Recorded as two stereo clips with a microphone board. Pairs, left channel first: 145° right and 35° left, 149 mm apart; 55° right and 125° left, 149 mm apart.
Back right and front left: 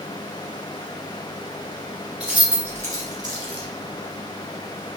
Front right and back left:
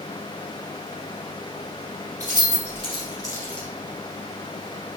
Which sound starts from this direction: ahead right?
Keys jangling, at 2.2 s.